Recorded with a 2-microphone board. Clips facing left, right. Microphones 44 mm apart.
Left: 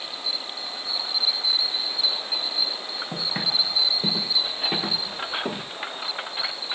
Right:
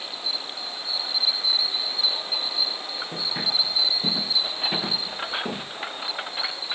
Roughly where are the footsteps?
Left.